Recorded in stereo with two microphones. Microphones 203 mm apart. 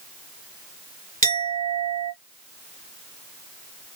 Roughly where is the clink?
Right.